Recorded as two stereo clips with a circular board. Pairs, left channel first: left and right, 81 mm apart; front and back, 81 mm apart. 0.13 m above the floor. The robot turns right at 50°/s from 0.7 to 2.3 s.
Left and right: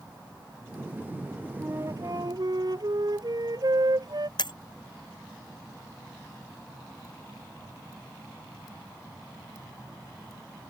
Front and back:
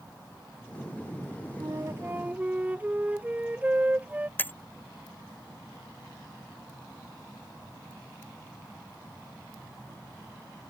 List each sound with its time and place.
1.6 s a flute: 145° right; by 4.3 s 110° right
4.4 s breaking glass: 65° left